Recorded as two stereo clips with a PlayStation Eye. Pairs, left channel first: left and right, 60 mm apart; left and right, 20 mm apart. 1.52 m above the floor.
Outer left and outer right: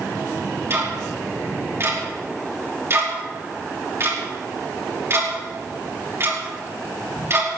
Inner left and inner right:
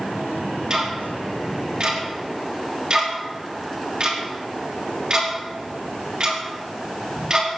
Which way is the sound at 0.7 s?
45° right (ahead or behind).